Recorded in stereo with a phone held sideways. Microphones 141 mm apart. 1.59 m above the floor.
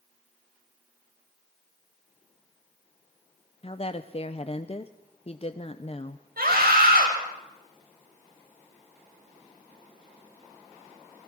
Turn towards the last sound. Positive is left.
turn(degrees=-85)